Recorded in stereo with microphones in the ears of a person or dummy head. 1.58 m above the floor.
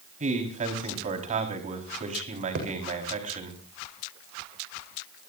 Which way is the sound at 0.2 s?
35° right (ahead or behind).